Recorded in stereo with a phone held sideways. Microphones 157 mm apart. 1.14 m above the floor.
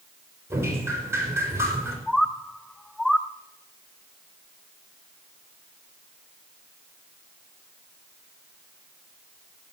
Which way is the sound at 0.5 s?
15° right (ahead or behind).